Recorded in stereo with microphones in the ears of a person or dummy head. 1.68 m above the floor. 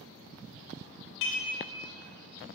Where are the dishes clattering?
60° left (ahead or behind), 1.3 m.